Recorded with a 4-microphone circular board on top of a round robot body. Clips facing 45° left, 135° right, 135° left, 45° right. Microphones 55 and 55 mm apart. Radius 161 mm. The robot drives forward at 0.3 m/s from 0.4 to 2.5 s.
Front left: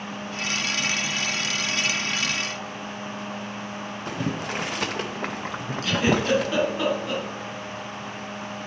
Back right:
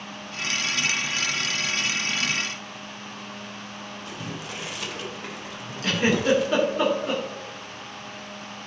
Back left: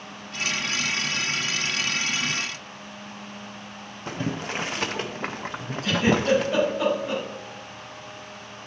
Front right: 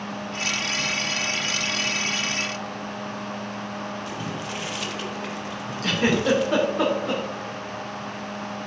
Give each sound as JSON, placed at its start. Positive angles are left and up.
{"t": 4.1, "sound": "boiling", "azimuth_deg": 85, "distance_m": 0.6}
{"t": 5.8, "sound": "a giggle", "azimuth_deg": -70, "distance_m": 2.5}